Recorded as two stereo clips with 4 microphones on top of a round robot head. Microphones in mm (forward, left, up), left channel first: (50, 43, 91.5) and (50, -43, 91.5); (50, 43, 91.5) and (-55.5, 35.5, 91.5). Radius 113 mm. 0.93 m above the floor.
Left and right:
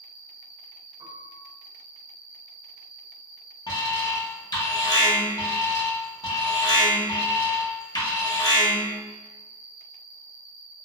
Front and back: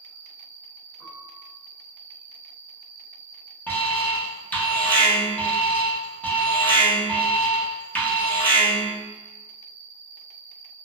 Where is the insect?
55° right, 1.9 m.